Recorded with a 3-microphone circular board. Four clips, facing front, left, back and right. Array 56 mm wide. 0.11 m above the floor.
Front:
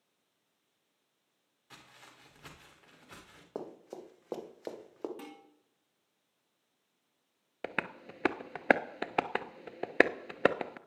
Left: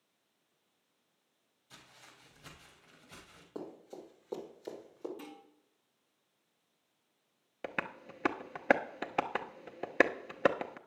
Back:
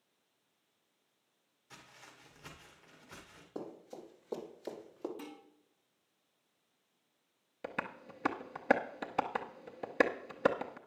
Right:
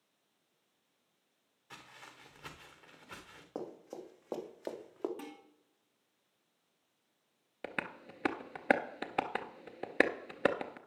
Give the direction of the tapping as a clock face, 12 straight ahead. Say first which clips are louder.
Left 2 dB, front 3 dB; 12 o'clock.